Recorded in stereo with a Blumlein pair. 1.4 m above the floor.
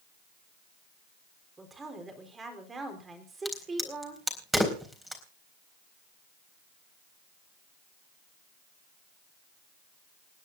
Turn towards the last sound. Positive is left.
turn(degrees=-5)